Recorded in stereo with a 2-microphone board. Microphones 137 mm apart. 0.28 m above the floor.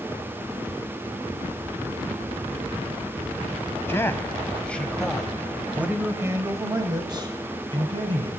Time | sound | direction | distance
3.9 | a man speaking | 20° left (ahead or behind) | 2 m